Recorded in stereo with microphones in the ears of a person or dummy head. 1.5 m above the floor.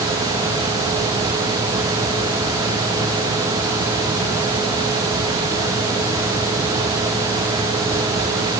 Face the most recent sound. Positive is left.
No sound to turn to.